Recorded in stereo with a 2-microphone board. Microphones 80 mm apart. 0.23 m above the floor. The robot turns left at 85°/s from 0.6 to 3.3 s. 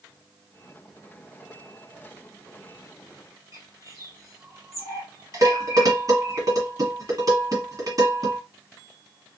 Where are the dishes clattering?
50° right (ahead or behind), 1.5 m.